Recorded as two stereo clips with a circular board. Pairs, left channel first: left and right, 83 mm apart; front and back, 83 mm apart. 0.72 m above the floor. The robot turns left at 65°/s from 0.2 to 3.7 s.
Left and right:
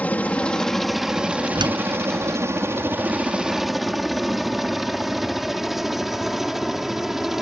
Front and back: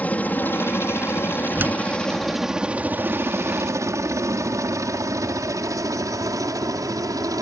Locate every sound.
0.0 s a helicopter: 40° left; by 7.4 s 175° right
1.6 s a door slam: 110° right; by 1.8 s 125° right